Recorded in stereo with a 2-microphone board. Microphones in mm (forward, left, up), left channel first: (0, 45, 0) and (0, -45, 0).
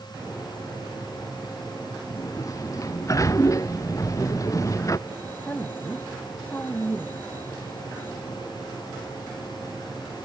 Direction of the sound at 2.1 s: 35° left (ahead or behind).